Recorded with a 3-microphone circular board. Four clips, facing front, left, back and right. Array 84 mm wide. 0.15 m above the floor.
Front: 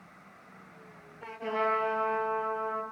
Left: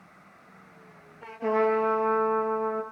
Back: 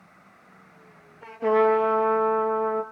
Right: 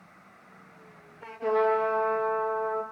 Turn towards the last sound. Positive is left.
turn(degrees=155)